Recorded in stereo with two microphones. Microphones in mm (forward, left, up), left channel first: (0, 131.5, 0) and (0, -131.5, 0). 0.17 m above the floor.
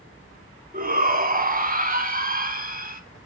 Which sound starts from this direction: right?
A shout, at 0.7 s.